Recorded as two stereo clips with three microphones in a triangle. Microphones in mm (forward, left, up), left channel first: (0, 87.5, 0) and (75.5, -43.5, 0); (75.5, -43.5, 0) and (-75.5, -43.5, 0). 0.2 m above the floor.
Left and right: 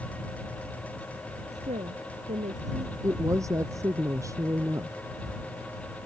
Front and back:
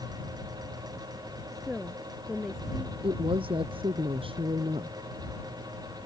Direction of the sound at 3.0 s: 130° right.